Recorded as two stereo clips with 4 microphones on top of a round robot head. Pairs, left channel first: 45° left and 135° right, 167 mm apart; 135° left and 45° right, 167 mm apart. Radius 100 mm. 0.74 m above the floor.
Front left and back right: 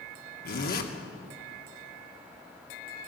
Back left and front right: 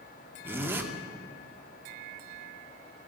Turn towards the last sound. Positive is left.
turn(degrees=30)